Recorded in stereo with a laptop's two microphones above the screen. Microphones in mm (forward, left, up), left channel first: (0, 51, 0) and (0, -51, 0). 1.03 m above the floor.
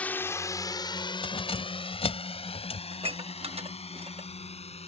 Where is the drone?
15° left (ahead or behind); by 4.9 s 80° left.